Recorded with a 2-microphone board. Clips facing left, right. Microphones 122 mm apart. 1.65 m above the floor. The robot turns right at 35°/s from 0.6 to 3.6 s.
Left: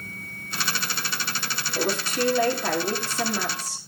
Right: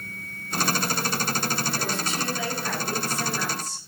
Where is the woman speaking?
35° left, 5 m; by 3.8 s 100° left, 5 m.